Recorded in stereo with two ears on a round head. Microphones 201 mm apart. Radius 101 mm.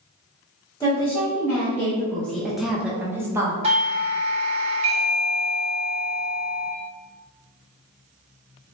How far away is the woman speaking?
About 1.4 m.